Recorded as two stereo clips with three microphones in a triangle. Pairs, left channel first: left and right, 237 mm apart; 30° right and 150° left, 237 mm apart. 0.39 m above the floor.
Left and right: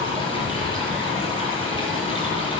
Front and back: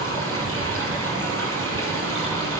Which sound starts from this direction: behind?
Running water, at 0.0 s.